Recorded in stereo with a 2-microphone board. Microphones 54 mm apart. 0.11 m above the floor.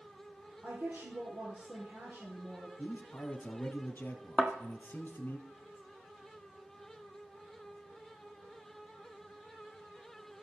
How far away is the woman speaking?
About 3.5 m.